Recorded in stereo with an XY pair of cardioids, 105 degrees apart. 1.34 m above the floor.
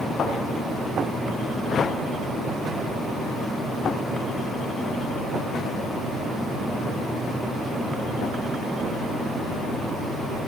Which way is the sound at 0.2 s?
45° left.